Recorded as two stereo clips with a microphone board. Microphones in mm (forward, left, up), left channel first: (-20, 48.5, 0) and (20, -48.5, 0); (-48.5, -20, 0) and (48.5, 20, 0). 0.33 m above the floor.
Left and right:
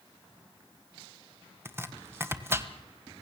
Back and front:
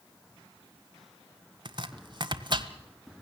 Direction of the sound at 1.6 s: 5° right.